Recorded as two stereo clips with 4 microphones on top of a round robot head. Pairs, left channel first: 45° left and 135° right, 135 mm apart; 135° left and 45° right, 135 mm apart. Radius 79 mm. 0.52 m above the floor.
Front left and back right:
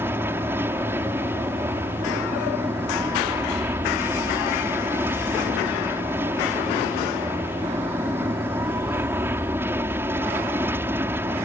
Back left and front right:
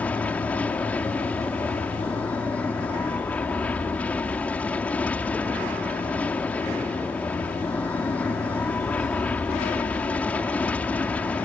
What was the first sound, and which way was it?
An aircraft, 170° right.